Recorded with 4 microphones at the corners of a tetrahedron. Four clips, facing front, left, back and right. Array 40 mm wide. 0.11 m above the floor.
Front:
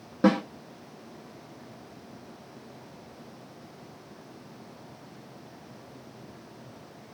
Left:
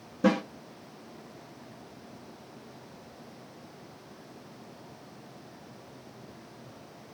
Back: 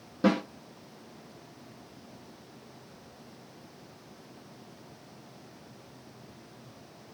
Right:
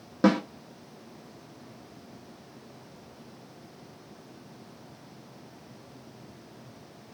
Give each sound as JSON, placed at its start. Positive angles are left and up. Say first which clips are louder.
{"t": 0.2, "sound": "a snare drum", "louder": "right 2 dB, front 3 dB", "azimuth_deg": -75, "distance_m": 1.0}